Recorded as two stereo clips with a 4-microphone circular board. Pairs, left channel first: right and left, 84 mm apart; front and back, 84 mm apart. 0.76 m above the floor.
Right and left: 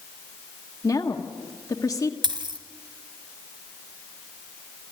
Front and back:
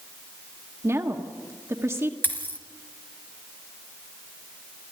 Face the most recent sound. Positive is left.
turn(degrees=65)